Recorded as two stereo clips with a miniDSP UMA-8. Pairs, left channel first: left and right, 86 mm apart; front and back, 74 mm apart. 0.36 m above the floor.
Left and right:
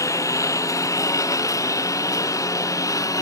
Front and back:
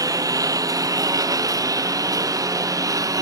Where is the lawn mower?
145° left; by 3.2 s 140° left.